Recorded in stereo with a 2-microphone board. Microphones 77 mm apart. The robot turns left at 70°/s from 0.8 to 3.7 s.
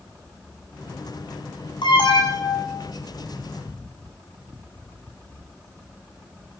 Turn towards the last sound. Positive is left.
turn(degrees=-40)